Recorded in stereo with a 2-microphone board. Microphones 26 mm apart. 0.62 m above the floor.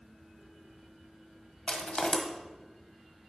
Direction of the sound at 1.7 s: 50° left (ahead or behind).